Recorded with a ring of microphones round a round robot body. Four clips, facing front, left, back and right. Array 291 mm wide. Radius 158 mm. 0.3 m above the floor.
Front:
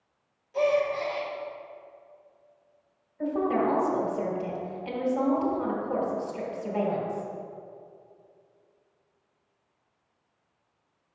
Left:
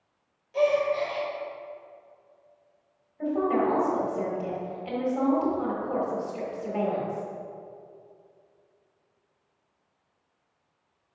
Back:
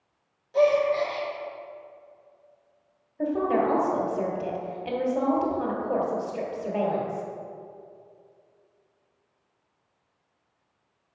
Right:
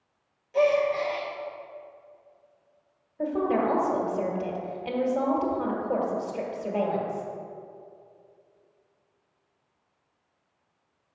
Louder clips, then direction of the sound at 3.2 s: Even, back 2 dB; 135° right.